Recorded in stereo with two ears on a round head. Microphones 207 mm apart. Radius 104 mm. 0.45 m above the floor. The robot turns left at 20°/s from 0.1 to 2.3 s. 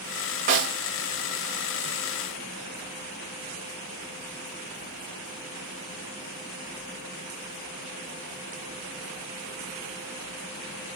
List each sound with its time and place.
0.5 s a snare drum: 35° right (ahead or behind), 1.6 m; by 0.7 s 40° right (ahead or behind), 1.6 m